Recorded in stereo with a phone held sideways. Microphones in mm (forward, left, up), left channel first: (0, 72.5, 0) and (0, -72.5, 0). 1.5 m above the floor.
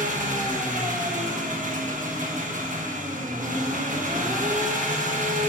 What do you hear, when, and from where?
0.0 s an engine running: 65° right (ahead or behind), 1.3 m